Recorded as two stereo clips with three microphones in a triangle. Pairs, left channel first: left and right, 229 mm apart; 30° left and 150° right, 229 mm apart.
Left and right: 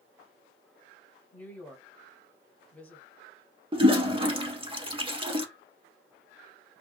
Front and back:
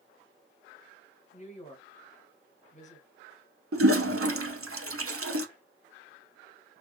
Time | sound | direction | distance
1.3 | a woman speaking | 10° left | 1.2 m
3.7 | a toilet flushing | 160° right | 0.7 m